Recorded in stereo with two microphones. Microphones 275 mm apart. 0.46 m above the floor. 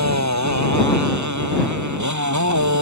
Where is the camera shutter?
No camera shutter in this recording.